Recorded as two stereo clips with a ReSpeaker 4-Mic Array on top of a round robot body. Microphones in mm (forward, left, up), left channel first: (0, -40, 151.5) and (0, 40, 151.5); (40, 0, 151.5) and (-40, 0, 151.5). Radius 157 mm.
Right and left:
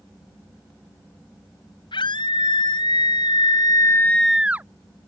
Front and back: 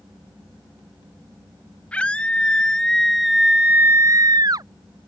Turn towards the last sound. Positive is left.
turn(degrees=150)